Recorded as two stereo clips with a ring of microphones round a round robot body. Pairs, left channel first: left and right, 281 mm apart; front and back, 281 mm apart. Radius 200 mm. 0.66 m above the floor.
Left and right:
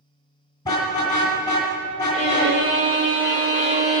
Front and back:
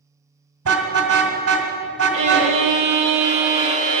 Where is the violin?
165° right, 1.6 m.